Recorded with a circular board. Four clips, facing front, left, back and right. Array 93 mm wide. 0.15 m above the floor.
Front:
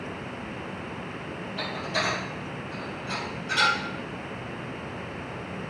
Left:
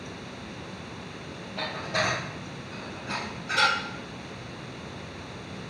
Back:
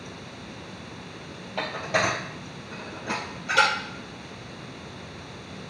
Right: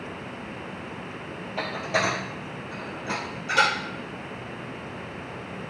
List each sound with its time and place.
1.6 s dishes clattering: 155° right, 3 m